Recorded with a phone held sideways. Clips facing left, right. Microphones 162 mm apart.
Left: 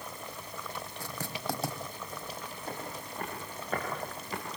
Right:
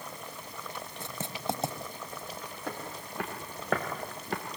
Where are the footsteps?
80° right, 5.5 m; by 4.4 s 65° right (ahead or behind), 3.5 m.